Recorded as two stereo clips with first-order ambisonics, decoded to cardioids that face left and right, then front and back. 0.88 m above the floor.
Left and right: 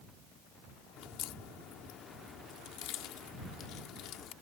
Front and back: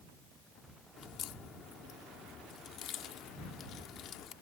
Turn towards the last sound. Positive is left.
turn(degrees=50)